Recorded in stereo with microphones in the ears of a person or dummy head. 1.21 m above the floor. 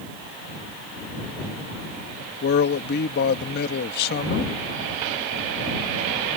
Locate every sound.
2.4 s a man speaking: 55° left (ahead or behind)